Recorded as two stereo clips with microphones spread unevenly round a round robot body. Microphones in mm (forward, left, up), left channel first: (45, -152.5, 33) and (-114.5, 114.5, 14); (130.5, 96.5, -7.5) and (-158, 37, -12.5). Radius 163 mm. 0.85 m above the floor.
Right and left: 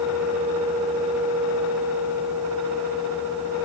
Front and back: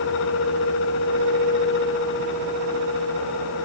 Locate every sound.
Only background noise.